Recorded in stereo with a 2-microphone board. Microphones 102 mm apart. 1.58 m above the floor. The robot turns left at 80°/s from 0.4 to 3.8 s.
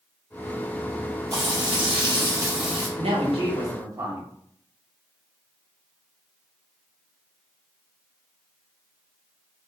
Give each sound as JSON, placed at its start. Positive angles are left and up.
{"t": 1.3, "sound": "frying", "azimuth_deg": -45, "distance_m": 1.5}
{"t": 3.0, "sound": "a woman speaking", "azimuth_deg": -80, "distance_m": 1.1}